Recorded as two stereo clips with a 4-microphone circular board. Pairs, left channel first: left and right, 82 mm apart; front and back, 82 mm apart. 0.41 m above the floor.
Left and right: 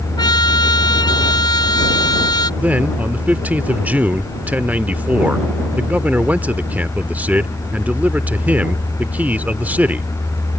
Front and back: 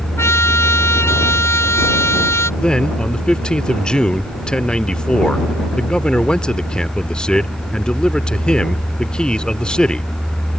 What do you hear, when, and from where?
0.2 s a trumpet: 55° left
2.6 s a man speaking: 60° right